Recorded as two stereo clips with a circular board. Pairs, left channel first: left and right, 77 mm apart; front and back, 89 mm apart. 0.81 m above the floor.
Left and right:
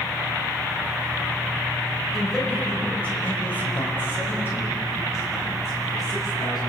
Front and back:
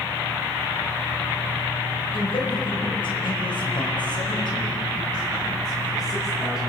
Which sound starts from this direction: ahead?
A man speaking, at 2.1 s.